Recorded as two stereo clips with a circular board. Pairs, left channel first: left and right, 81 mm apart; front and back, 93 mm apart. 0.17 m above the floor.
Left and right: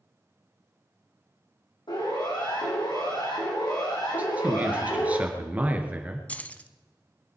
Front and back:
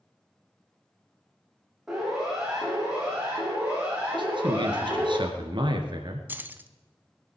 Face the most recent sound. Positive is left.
turn(degrees=140)